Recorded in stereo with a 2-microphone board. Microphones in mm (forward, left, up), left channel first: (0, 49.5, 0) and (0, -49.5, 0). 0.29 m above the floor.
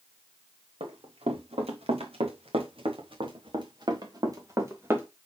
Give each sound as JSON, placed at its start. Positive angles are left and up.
{"t": 0.8, "sound": "running footsteps", "side_deg": -80, "distance_m": 2.5}